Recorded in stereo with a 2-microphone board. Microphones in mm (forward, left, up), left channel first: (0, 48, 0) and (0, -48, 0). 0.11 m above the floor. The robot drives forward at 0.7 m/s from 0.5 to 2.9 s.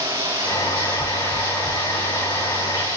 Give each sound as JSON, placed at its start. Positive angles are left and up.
{"t": 0.0, "sound": "running water", "side_deg": -30, "distance_m": 9.0}